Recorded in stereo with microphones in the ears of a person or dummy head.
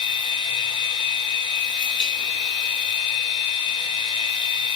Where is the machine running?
30° left (ahead or behind), 3 m.